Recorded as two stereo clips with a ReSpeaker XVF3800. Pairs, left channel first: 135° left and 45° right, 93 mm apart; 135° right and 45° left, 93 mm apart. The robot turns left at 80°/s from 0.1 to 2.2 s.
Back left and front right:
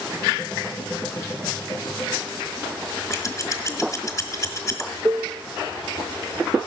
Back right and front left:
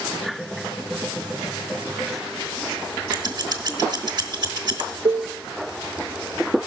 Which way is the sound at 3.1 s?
85° left.